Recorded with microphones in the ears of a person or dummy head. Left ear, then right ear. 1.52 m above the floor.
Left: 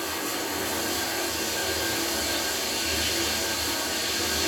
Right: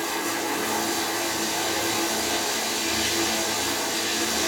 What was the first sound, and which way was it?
Running water, 25° right (ahead or behind).